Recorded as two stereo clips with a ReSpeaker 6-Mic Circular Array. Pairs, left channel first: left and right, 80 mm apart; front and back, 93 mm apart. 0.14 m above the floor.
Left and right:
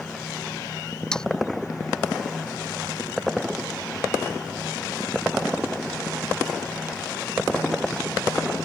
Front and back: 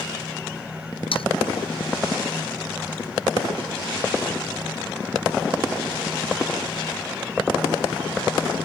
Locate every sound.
1.1 s sawing: 10° left